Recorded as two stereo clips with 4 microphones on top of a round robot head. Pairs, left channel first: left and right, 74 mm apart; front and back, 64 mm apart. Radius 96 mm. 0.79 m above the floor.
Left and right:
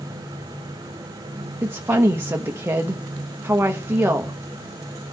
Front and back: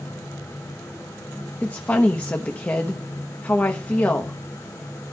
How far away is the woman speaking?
About 1.1 m.